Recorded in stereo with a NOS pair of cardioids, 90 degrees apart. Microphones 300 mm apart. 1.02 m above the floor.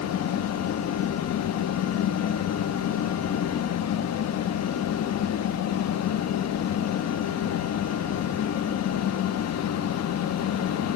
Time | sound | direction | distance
0.0 | a fan | 60° left | 1.3 m